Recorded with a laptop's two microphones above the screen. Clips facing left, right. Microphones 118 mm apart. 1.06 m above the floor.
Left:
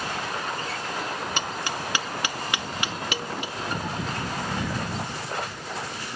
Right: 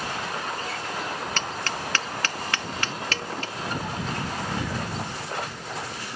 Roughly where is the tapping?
Centre.